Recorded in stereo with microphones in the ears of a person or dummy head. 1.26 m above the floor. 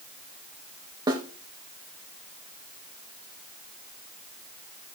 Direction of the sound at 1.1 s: 30° right (ahead or behind).